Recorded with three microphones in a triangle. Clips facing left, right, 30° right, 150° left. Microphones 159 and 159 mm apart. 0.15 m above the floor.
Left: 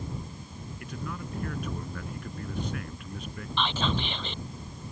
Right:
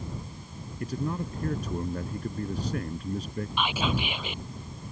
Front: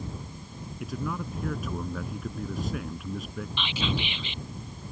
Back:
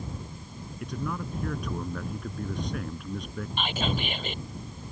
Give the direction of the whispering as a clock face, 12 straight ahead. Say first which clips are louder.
Even, back 2 dB; 6 o'clock.